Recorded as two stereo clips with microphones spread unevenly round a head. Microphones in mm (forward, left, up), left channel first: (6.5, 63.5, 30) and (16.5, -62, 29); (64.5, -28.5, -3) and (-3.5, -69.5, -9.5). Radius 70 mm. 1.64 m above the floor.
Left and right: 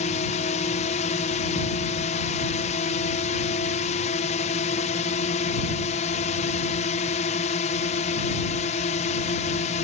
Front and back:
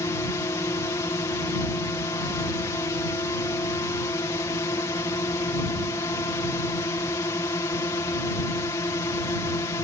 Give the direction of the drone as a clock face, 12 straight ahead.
9 o'clock.